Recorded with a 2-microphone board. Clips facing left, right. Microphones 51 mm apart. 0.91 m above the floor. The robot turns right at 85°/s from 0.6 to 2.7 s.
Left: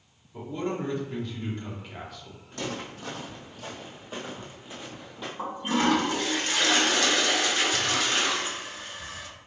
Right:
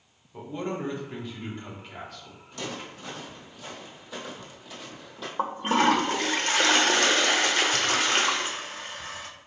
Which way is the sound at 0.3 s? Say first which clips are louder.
Left 1 dB; 20° right (ahead or behind).